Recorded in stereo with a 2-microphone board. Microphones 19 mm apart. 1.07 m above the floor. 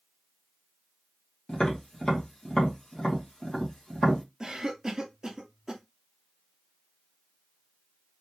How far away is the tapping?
About 1.5 m.